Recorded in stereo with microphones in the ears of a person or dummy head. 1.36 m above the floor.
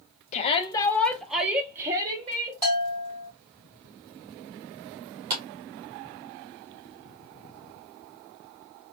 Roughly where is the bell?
Centre.